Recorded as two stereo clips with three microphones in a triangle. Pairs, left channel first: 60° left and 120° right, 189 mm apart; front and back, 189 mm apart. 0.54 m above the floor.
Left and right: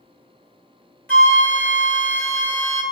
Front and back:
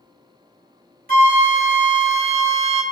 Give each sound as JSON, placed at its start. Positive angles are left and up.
{"t": 1.1, "sound": "a flute", "azimuth_deg": 140, "distance_m": 1.1}